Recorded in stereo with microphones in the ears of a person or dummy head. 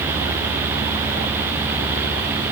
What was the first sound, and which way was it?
Only background noise.